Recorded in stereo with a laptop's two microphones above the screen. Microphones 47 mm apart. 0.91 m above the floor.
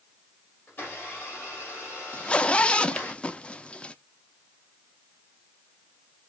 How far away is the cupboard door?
No cupboard door in this recording.